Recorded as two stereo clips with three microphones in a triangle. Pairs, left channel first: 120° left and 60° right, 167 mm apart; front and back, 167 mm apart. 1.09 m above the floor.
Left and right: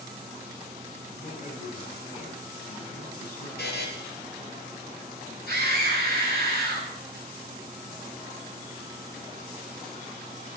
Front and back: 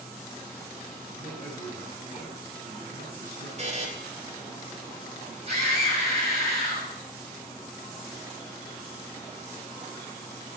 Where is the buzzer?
130° left, 3 m.